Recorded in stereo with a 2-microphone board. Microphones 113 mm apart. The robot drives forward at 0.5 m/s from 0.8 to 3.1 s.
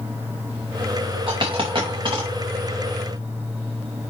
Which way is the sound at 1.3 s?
50° right (ahead or behind).